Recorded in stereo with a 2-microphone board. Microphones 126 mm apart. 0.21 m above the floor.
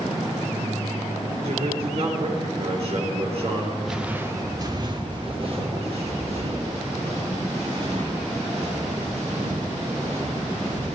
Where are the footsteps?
Centre (ahead or behind), 1.2 m; by 10.9 s 65° right (ahead or behind), 8.5 m.